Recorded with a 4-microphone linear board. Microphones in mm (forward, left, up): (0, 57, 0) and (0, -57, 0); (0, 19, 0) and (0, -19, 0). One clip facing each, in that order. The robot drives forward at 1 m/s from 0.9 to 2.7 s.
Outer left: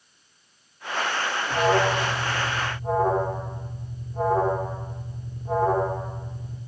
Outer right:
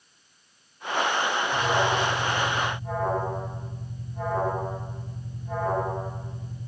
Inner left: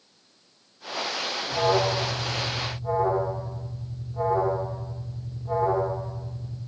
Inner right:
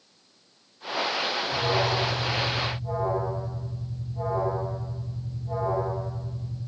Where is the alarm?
60° left (ahead or behind), 3 m; by 6.6 s 40° left (ahead or behind), 3.5 m.